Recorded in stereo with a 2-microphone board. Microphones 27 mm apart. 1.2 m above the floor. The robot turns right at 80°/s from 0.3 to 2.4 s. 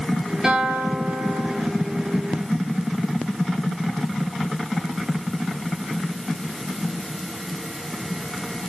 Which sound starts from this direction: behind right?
A guitar, at 0.4 s.